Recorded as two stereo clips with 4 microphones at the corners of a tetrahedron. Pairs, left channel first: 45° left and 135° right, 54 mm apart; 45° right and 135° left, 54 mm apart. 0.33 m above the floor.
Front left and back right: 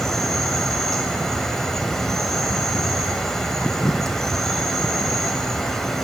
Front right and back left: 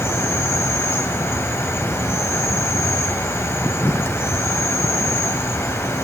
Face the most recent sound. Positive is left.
turn(degrees=-35)